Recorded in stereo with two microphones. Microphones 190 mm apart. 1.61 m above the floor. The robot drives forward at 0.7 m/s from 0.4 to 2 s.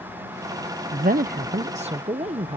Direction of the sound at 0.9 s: 45° right (ahead or behind).